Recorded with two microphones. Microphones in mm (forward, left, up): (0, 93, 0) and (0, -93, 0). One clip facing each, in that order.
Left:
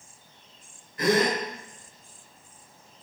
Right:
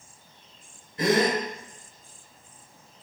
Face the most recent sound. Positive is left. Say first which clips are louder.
# right 1 dB
turn(degrees=-25)  # may be behind; listen again after turning